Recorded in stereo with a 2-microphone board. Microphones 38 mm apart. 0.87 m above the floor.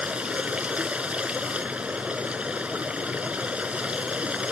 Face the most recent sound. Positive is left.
turn(degrees=-35)  # may be behind; listen again after turning